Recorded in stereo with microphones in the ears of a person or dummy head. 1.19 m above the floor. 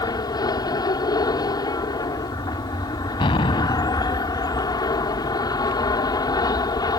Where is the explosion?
30° left (ahead or behind).